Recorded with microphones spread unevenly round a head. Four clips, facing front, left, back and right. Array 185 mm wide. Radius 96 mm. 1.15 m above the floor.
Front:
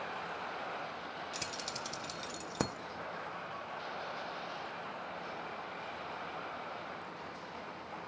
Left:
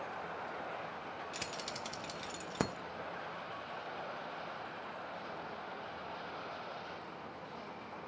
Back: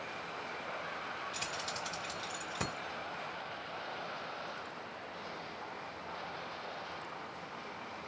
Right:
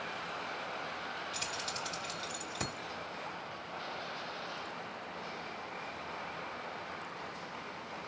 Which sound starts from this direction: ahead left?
Keys jangling, at 1.3 s.